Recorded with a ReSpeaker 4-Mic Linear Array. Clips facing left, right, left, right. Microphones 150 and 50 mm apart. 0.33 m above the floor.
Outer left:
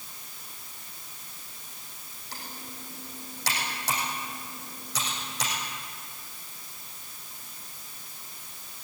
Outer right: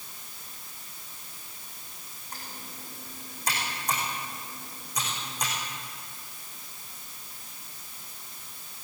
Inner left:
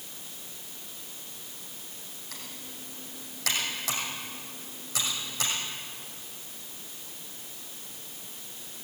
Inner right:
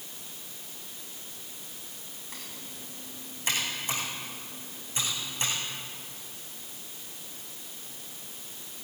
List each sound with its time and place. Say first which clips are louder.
2.3 s typing on a keyboard: outer left 1 dB, even; 85° left, 6.5 m